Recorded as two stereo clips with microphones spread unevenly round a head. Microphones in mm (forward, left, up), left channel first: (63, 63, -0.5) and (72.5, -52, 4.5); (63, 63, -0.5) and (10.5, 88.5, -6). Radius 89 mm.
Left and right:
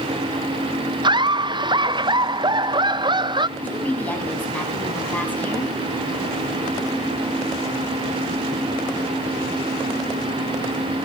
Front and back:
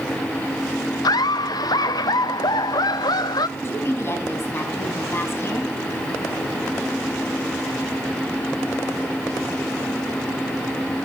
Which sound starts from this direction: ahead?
A woman speaking, at 3.6 s.